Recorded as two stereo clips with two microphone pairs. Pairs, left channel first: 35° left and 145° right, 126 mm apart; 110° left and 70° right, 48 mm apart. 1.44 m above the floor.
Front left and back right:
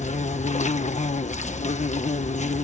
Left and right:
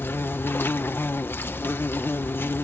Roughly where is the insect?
Ahead left.